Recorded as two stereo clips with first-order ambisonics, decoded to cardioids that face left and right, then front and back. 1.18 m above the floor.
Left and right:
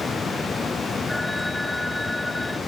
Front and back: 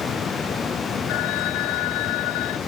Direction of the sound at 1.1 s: 5° left.